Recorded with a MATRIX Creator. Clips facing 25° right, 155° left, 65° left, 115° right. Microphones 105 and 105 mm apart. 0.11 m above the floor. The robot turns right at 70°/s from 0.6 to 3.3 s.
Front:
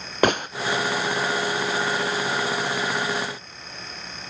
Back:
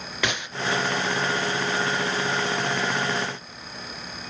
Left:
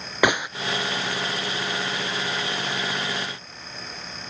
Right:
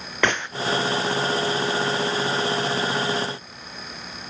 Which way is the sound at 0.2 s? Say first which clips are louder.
Front 9 dB, left 2 dB; 5° right.